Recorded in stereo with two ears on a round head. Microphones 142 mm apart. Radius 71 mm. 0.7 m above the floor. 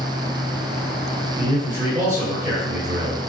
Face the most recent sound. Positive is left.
turn(degrees=-20)  # may be behind; listen again after turning